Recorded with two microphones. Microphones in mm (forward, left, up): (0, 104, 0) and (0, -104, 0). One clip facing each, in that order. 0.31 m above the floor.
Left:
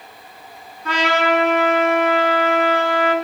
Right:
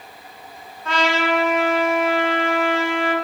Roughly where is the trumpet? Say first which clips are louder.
Left 2 dB; left.